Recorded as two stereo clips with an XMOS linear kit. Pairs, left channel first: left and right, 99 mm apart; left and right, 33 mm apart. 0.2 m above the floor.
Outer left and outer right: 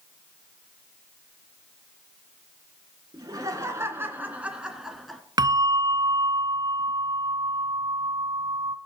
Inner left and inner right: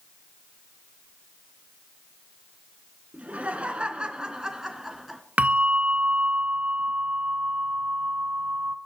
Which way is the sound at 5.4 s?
45° right (ahead or behind).